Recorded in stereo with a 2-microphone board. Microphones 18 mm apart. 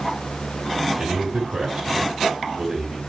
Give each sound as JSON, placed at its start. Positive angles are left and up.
{"t": 1.0, "sound": "a man speaking", "side_deg": -65, "distance_m": 6.0}